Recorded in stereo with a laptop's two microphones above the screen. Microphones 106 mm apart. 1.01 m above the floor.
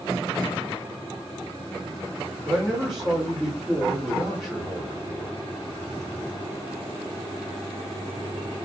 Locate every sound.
2.5 s a man speaking: 5° left (ahead or behind), 2 m